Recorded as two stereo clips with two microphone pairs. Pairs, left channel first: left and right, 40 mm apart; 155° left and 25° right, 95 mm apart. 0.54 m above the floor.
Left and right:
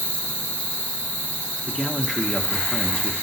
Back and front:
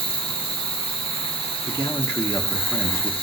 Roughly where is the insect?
Behind left.